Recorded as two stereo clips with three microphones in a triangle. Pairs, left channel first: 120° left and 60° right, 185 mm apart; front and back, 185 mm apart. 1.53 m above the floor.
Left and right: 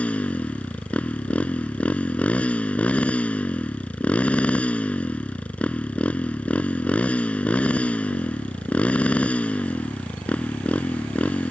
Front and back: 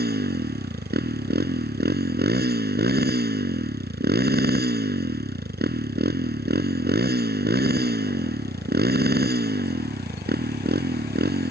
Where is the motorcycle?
155° right.